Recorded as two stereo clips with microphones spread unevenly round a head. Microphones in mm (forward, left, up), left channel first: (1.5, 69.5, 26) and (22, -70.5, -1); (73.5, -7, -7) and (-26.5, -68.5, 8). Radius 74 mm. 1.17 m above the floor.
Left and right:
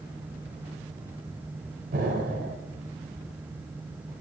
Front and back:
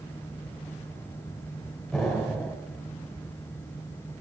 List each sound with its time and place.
1.9 s an explosion: 60° right, 1.7 m